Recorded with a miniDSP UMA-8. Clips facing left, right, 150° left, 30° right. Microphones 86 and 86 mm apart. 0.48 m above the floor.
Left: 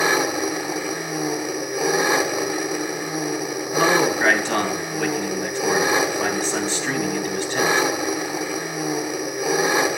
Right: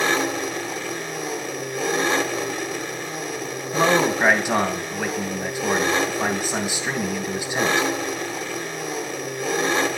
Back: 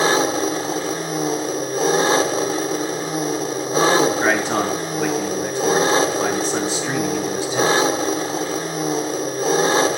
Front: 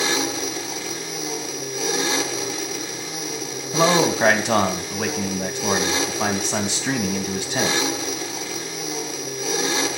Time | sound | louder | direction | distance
0.0 | an engine running | left 2 dB, back 7 dB | 160° left | 1.0 m
3.7 | a man speaking | even, back 1 dB | 15° right | 2.5 m